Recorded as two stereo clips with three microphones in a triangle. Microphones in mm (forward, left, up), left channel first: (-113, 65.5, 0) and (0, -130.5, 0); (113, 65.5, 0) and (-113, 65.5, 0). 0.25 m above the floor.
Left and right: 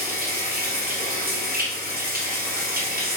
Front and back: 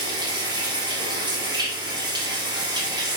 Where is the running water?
110° right, 3 m.